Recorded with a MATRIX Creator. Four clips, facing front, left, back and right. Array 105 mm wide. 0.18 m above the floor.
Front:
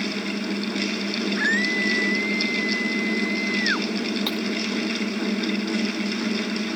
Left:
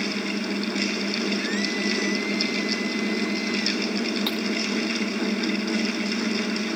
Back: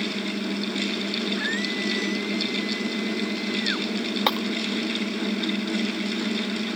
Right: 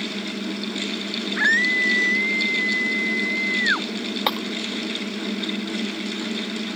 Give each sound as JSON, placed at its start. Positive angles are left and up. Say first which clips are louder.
{"t": 1.4, "sound": "a scream", "louder": "right 4 dB, front 4 dB", "azimuth_deg": -70}
{"t": 4.3, "sound": "breaking glass", "louder": "right 3 dB, back 3 dB", "azimuth_deg": -140}